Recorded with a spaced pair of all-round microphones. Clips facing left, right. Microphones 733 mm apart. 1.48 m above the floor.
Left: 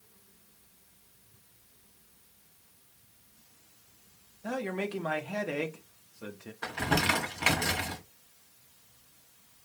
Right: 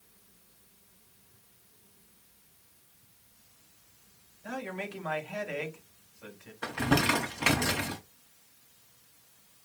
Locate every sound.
4.4 s a man speaking: 70° left (ahead or behind), 0.9 m
6.6 s crumpling: 15° right (ahead or behind), 1.0 m